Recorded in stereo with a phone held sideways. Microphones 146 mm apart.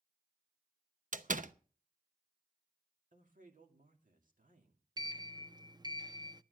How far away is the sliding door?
About 0.6 m.